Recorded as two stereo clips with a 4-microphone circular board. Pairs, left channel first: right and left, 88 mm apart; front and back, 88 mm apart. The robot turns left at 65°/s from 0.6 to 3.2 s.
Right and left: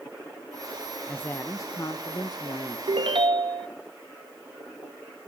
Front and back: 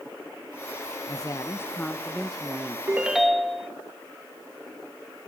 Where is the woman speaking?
20° right, 0.6 m; by 2.8 s 130° right, 0.6 m.